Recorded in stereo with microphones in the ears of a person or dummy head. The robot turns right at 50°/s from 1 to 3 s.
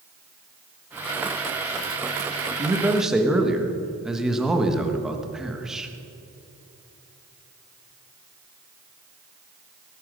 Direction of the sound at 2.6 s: 25° right (ahead or behind).